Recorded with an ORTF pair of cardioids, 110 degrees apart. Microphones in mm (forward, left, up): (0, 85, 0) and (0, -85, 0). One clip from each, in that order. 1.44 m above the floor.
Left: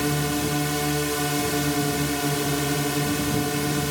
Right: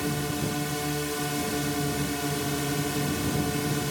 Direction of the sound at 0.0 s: 35° left.